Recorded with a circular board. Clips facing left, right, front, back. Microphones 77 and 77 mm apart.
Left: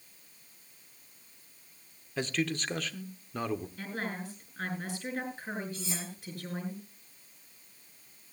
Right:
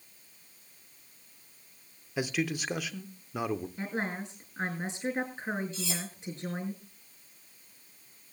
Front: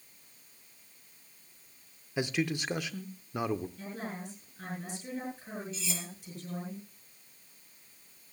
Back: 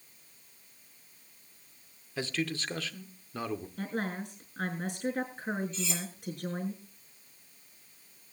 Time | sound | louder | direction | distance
2.2 | a man speaking | right 1 dB, front 2 dB | 35° right | 0.7 m
3.8 | a woman speaking | right 3 dB, back 5 dB | 155° right | 6 m
5.7 | cutlery clinking | right 2 dB, back 3 dB | 85° right | 6 m